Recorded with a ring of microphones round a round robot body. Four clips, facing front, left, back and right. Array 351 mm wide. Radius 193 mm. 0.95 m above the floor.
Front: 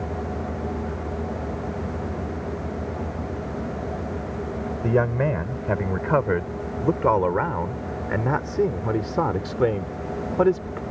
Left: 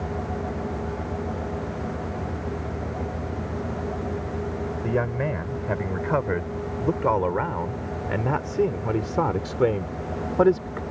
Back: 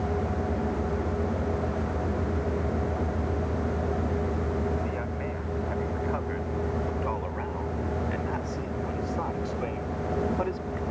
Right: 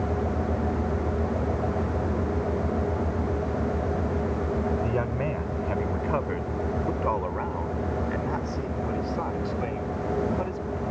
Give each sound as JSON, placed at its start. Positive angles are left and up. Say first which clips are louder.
{"t": 4.8, "sound": "a man speaking", "louder": "left 2 dB, front 11 dB", "azimuth_deg": 10}